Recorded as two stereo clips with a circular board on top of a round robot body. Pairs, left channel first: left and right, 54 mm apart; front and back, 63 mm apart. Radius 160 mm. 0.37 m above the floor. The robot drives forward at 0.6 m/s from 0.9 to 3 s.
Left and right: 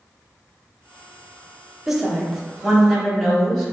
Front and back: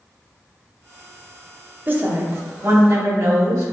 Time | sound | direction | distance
1.9 | a woman speaking | 165° right | 1.0 m